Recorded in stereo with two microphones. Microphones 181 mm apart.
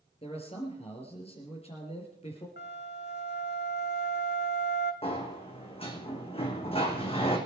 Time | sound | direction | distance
0.2 | a man speaking | 30° left (ahead or behind) | 4 m
2.6 | a flute | 65° left (ahead or behind) | 1.4 m
5.0 | a sliding door | 30° left (ahead or behind) | 3 m